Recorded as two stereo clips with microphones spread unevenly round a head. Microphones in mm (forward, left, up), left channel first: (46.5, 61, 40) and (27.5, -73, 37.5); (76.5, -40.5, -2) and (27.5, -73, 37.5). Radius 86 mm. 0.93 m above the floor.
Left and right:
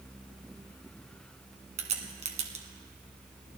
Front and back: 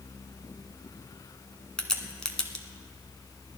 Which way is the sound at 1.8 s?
60° right.